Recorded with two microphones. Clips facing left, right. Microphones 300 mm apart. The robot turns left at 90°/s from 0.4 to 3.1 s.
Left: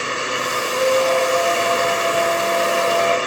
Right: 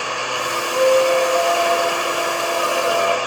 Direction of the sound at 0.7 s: 125° right.